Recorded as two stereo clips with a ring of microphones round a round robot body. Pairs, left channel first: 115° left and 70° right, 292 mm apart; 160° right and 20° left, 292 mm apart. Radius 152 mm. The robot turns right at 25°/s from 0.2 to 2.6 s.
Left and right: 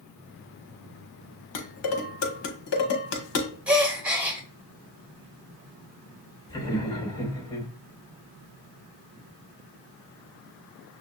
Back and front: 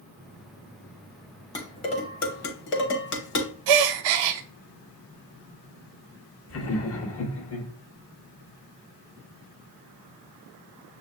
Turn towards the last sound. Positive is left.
turn(degrees=-175)